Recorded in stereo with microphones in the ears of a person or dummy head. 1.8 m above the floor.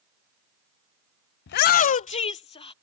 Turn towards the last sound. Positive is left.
turn(degrees=30)  # may be behind; listen again after turning